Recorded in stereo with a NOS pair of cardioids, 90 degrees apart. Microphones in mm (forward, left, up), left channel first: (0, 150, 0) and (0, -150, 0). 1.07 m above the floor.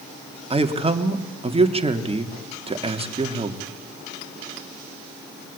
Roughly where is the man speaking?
Ahead.